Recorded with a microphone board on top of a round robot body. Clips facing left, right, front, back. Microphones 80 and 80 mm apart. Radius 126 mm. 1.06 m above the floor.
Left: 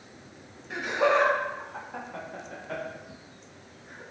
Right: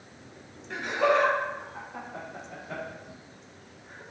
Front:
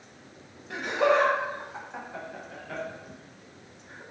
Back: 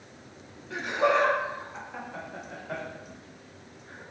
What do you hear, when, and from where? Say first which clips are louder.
0.7 s laughter: even, front 1 dB; 10° left, 1.3 m; by 4.0 s 130° left, 2.5 m